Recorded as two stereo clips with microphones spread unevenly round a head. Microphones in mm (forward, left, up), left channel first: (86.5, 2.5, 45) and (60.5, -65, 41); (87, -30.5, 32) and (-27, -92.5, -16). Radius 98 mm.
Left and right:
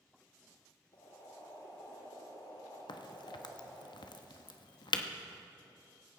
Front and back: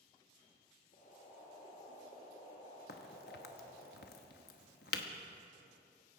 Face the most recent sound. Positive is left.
turn(degrees=55)